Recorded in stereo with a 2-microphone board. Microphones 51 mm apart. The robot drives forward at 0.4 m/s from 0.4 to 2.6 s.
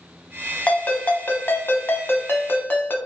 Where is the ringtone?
30° left (ahead or behind), 0.8 m; by 3.0 s 40° left (ahead or behind), 0.7 m.